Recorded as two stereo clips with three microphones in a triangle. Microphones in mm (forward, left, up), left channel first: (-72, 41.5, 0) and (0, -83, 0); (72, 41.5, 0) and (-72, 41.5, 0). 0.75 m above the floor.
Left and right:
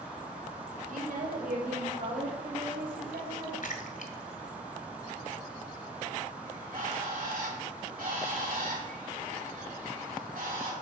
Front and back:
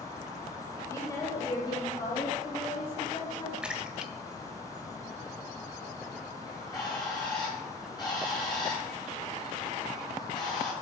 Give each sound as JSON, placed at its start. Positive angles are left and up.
{"t": 0.9, "sound": "a woman speaking", "azimuth_deg": -70, "distance_m": 3.5}
{"t": 3.6, "sound": "a splash", "azimuth_deg": 95, "distance_m": 1.6}
{"t": 6.5, "sound": "a bird", "azimuth_deg": -60, "distance_m": 6.5}